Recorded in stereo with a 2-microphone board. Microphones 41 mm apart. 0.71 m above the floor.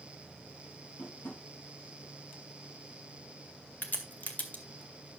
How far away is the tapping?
About 8 m.